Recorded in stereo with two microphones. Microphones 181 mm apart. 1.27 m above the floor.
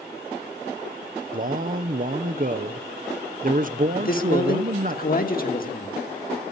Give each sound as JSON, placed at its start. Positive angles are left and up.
{"t": 1.3, "sound": "a man speaking", "side_deg": -50, "distance_m": 0.7}
{"t": 4.0, "sound": "a man speaking", "side_deg": 50, "distance_m": 1.6}